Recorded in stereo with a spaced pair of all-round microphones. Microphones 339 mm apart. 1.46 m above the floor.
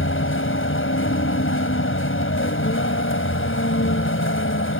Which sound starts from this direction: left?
A vehicle, at 0.0 s.